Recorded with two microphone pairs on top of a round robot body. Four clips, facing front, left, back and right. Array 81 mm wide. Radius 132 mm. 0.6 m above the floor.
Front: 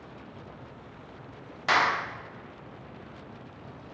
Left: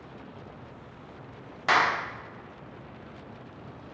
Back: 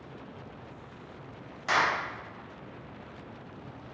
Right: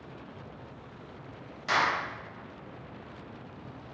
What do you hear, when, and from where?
1.7 s a clap: 75° left, 1.7 m